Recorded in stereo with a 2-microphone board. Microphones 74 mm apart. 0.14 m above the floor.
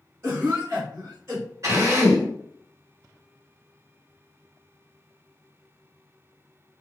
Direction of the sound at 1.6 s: 40° right (ahead or behind).